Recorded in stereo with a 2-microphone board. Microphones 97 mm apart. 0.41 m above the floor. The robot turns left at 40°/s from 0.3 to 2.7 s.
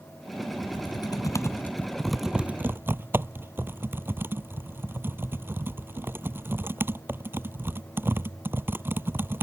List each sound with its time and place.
0.6 s typing on a keyboard: 60° left (ahead or behind); by 9.4 s 20° right (ahead or behind)